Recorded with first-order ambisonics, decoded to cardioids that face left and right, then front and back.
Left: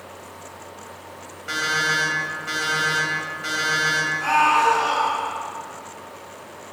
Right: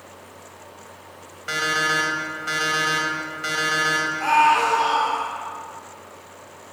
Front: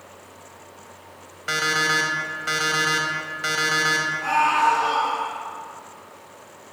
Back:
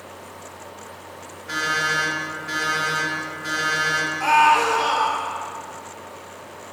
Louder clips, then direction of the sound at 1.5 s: Even, front 1 dB; 15° right.